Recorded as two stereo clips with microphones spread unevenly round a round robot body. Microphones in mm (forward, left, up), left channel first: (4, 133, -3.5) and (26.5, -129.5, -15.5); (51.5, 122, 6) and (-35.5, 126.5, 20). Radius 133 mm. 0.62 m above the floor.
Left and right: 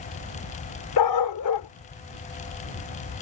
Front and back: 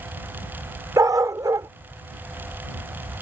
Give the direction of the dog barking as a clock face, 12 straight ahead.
8 o'clock.